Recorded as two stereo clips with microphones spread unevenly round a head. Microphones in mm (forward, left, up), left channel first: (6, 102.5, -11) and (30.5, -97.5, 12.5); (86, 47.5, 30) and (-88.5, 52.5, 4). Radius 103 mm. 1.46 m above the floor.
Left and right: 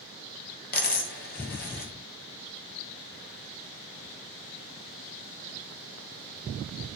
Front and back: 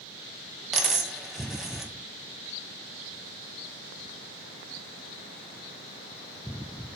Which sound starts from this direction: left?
A dropped coin, at 0.7 s.